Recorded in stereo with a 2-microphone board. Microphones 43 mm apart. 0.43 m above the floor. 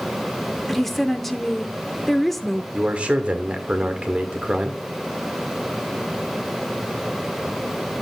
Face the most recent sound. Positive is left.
turn(degrees=-30)  # may be behind; listen again after turning